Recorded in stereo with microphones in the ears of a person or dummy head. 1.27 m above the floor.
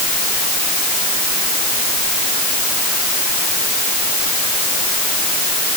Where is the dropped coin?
I don't hear a dropped coin.